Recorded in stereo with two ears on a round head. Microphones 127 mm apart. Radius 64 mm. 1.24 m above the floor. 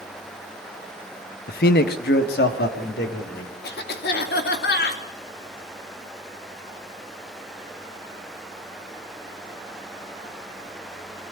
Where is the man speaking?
70° left (ahead or behind), 0.8 m; by 3.5 s 75° left (ahead or behind), 3.5 m.